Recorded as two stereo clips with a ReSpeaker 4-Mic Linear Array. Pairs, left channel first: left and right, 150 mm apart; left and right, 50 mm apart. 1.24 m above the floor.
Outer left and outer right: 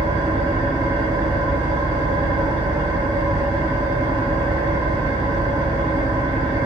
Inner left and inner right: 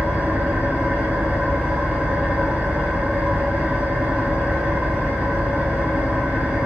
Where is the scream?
No scream in this recording.